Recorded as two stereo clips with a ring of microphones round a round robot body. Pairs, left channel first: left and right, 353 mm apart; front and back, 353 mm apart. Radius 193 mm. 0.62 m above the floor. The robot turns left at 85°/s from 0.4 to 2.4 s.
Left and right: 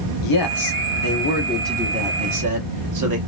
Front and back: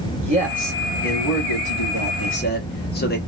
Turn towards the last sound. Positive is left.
turn(degrees=-60)